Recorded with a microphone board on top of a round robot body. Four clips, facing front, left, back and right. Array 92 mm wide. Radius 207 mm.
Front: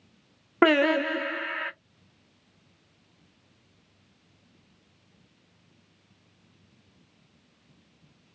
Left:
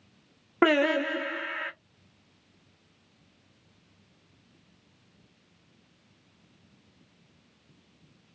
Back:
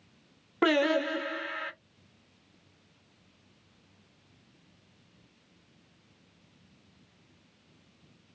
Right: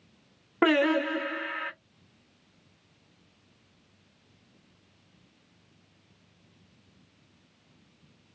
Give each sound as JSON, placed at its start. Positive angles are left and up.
{"t": 0.6, "sound": "singing", "azimuth_deg": 15, "distance_m": 1.1}